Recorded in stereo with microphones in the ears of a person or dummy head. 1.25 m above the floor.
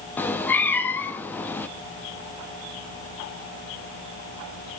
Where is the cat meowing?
10° left (ahead or behind), 0.8 m.